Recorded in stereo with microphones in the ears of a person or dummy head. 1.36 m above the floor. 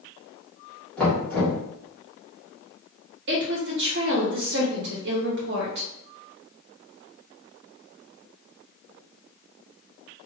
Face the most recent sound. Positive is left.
turn(degrees=-50)  # may be behind; listen again after turning